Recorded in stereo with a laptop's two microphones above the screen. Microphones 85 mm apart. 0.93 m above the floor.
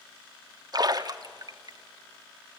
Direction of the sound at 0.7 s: 45° right (ahead or behind).